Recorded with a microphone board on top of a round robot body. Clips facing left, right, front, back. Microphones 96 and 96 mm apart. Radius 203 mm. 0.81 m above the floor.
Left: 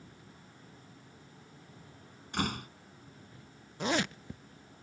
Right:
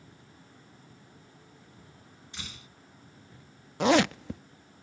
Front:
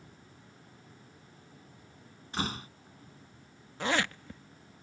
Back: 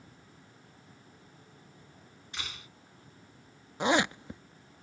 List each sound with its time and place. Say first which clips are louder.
2.3 s a door slam: left 14 dB, front 10 dB; 55° left
3.8 s a zipper: right 9 dB, back 4 dB; 105° right